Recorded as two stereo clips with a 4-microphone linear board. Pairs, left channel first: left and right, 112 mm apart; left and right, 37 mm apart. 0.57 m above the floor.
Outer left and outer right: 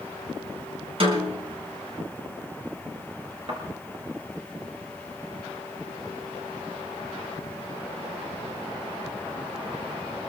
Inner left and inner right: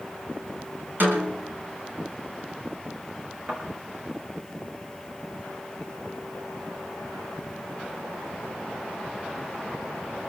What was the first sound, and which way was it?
A snare drum, 55° right (ahead or behind).